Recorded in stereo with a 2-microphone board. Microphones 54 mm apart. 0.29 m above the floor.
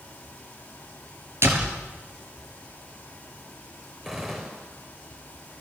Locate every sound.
1.4 s a door slam: 50° right (ahead or behind), 4.5 m
4.0 s a gunshot: 10° right (ahead or behind), 6.5 m